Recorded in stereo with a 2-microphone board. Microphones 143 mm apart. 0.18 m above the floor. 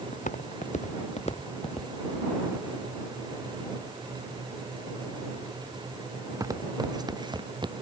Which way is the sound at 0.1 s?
60° left (ahead or behind).